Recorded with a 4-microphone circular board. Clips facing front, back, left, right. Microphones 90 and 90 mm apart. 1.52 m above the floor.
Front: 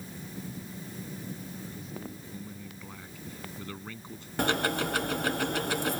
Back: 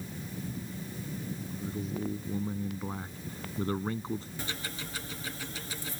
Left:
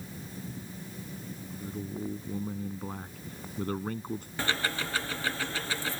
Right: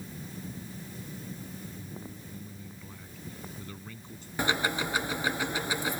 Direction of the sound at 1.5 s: 125° left.